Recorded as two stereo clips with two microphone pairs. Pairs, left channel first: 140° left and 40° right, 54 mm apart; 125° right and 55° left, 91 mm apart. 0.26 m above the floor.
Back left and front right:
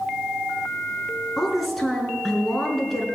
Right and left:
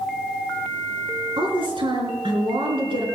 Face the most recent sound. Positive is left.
turn(degrees=55)